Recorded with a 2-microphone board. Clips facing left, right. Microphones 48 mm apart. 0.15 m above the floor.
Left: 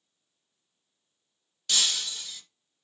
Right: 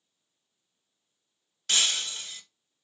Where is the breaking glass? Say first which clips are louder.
Right 1 dB; 40° right (ahead or behind), 1.3 m.